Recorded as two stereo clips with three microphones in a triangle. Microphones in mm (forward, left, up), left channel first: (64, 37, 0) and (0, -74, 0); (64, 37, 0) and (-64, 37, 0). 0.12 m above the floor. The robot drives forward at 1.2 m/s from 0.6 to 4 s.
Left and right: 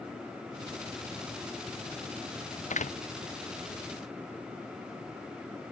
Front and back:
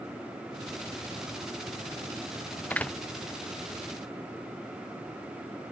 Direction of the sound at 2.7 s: 80° left.